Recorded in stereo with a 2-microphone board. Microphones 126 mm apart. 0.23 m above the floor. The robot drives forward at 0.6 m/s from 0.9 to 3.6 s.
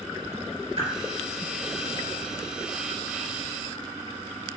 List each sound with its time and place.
0.8 s a whoosh: 50° right (ahead or behind), 3 m